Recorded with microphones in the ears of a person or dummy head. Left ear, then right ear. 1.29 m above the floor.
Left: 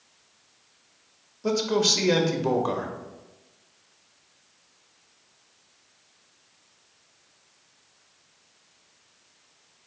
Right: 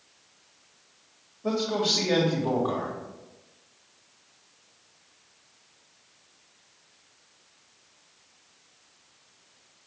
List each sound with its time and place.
1.4 s a man speaking: 75° left (ahead or behind), 1.5 m